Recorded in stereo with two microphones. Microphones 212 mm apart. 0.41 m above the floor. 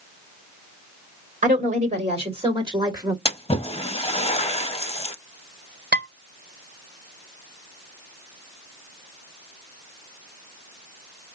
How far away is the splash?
About 0.6 m.